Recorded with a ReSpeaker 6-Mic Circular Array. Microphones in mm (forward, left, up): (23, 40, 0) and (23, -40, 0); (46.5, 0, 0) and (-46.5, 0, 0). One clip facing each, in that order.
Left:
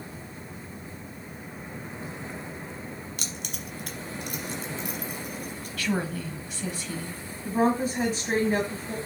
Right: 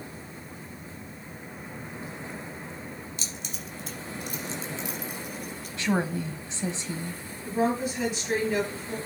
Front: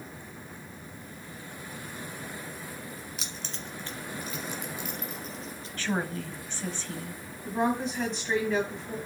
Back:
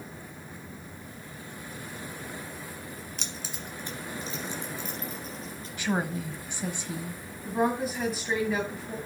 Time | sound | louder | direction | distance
3.2 | keys jangling | left 2 dB, back 1 dB | 85° left | 1.5 m
5.8 | a woman speaking | right 2 dB, back 2 dB | 120° right | 1.1 m
7.5 | a woman speaking | left 2 dB, back 1 dB | 100° left | 1.9 m